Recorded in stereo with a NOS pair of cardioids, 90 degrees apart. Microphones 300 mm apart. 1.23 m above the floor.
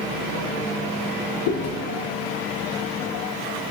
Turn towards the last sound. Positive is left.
turn(degrees=65)